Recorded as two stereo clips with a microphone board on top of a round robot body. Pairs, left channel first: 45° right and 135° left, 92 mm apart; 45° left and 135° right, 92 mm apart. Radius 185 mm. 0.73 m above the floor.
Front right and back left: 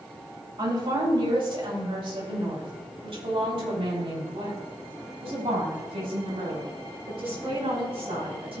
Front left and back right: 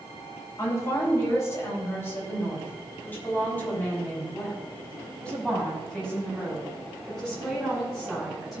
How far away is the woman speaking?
About 4.5 m.